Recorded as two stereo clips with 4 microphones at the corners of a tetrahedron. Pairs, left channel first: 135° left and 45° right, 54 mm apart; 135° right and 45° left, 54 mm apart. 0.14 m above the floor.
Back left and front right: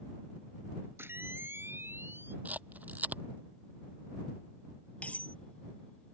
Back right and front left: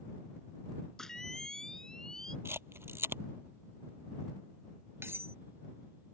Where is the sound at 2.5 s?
10° left.